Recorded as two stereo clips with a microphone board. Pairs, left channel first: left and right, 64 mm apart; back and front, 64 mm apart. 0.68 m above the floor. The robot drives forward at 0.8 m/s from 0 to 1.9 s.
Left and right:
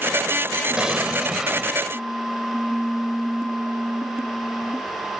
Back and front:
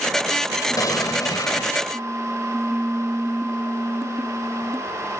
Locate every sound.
0.8 s an explosion: 165° right